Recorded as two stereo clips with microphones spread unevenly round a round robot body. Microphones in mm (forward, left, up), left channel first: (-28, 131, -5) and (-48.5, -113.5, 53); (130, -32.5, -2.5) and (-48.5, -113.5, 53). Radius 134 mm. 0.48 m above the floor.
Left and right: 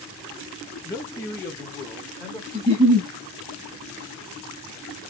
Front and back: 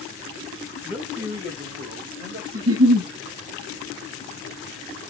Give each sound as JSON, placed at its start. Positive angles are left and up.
{"t": 0.8, "sound": "a man speaking", "azimuth_deg": 75, "distance_m": 0.9}
{"t": 2.5, "sound": "a giggle", "azimuth_deg": -165, "distance_m": 1.7}